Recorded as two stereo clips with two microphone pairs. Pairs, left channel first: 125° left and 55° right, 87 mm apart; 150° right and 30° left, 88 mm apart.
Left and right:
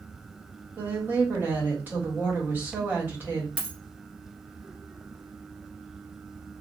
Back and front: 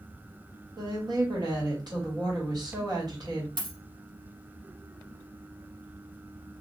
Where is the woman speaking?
5° left, 1.9 m.